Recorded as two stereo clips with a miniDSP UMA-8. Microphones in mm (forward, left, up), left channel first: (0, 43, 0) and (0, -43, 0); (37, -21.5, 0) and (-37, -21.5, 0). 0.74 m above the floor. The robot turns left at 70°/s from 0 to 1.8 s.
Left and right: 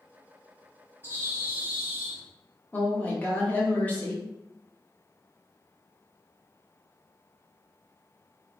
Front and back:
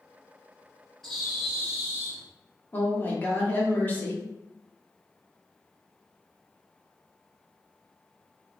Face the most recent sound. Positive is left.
turn(degrees=40)